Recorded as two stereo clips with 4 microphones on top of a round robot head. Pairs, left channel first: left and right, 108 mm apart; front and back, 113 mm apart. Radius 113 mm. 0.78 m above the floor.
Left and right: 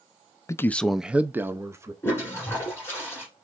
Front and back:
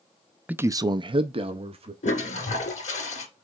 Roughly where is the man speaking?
Behind left.